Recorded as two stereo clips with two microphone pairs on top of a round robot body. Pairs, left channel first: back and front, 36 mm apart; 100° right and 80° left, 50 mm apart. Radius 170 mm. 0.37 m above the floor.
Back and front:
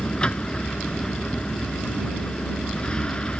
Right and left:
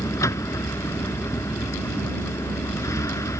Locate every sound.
0.0 s a vehicle: 120° right